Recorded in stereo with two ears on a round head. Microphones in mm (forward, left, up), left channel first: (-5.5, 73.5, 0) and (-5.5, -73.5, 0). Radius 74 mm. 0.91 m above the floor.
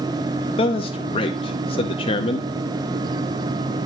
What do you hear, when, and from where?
0.6 s a man speaking: 35° left (ahead or behind), 0.7 m